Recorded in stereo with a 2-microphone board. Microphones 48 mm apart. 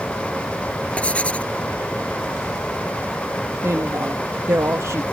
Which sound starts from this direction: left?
Writing, at 1.0 s.